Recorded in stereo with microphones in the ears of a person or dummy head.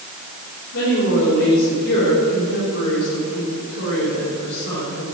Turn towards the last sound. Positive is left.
turn(degrees=70)  # may be behind; listen again after turning